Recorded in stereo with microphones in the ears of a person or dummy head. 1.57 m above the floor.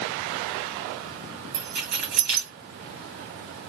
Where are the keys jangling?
60° right (ahead or behind), 1.9 m.